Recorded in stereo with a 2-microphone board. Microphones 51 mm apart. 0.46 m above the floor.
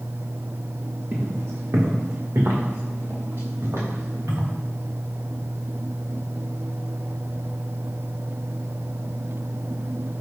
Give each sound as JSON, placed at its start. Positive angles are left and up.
{"t": 1.1, "sound": "footsteps", "side_deg": -60, "distance_m": 1.5}